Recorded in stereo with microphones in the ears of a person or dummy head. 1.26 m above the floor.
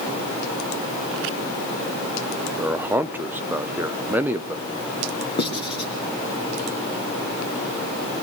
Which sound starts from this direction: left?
Writing, at 5.4 s.